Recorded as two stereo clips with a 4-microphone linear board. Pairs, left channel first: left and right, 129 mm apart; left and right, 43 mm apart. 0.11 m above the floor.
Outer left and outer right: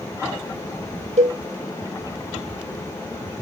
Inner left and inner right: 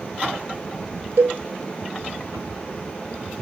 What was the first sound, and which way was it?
A cowbell, 65° right (ahead or behind).